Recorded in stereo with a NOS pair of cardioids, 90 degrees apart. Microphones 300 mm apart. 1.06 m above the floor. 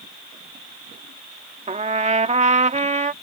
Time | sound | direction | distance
1.7 | a trumpet | 25° right | ?